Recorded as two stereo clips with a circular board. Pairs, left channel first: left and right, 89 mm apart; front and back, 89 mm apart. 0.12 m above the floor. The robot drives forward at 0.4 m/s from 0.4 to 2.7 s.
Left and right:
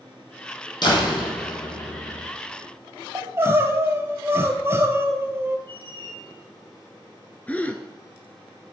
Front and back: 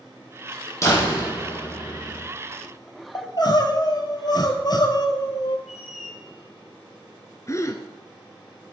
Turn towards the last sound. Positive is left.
turn(degrees=25)